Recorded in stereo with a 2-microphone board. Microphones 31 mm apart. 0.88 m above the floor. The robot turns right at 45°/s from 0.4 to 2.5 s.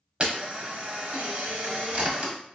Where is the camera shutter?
135° right, 1.0 m; by 2.3 s 45° right, 1.0 m.